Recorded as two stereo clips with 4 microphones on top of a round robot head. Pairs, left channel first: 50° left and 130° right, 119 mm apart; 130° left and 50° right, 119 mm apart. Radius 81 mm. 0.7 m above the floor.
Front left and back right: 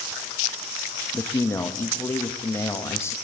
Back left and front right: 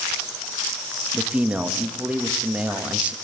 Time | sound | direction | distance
1.1 | a man speaking | 15° left | 1.1 m